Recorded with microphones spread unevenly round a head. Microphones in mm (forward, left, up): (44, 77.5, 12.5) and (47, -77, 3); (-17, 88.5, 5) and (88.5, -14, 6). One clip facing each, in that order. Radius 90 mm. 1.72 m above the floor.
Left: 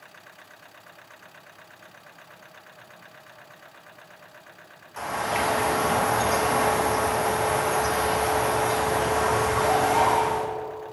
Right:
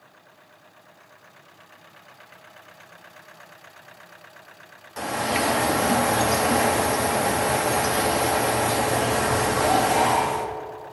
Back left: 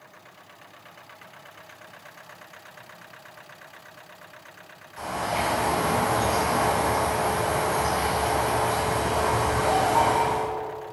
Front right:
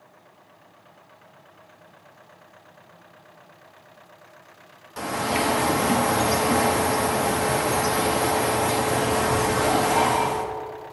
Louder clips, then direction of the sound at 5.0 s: Right 2 dB, front right 3 dB; 35° right.